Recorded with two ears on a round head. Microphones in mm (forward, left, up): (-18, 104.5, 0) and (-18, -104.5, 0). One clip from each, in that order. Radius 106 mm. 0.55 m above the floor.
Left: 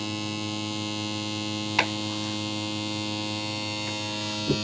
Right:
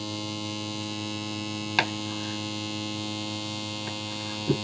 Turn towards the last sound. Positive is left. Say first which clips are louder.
# even
turn(degrees=-40)  # may be behind; listen again after turning